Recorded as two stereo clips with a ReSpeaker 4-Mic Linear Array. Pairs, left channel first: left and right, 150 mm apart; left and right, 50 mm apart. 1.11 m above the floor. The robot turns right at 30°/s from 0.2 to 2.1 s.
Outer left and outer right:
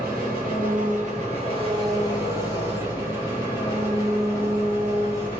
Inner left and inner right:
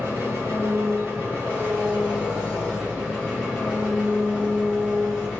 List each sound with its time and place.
0.0 s an engine running: 75° right, 1.3 m; by 5.4 s 20° right, 1.3 m